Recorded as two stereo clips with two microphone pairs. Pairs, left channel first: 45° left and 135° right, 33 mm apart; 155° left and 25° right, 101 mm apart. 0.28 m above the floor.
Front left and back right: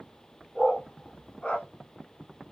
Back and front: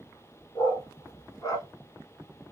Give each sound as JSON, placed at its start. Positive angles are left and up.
{"t": 0.6, "sound": "a dog barking", "azimuth_deg": 100, "distance_m": 1.2}